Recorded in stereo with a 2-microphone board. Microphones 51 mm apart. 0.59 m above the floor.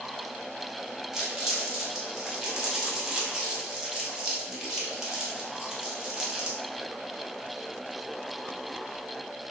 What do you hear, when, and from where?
1.1 s crumpling: 10° right (ahead or behind), 0.7 m